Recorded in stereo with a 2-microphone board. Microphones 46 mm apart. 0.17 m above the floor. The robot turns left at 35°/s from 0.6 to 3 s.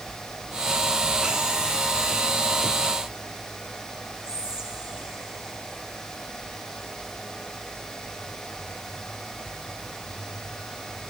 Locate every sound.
4.2 s whispering: 15° right (ahead or behind), 1.3 m